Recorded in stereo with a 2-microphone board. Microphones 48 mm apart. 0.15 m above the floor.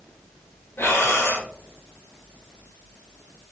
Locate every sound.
0.8 s breathing: 60° left (ahead or behind), 0.9 m